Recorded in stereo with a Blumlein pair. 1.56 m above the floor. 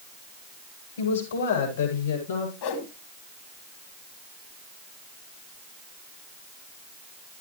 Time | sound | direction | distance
1.0 | a woman speaking | 70° left | 8.5 m
2.6 | a whoosh | 45° left | 2 m